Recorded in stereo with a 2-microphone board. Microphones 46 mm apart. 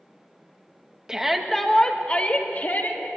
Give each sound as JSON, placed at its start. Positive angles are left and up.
{"t": 1.1, "sound": "a shout", "side_deg": -15, "distance_m": 1.9}